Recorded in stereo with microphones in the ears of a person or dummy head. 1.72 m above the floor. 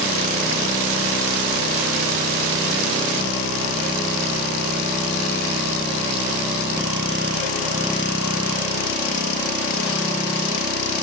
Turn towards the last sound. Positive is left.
No sound to turn to.